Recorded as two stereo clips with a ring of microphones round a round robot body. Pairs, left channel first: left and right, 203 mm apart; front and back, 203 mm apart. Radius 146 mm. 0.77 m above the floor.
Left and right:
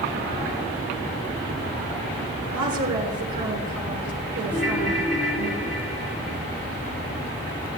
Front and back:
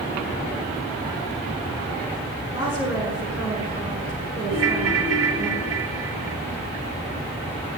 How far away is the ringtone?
About 2 m.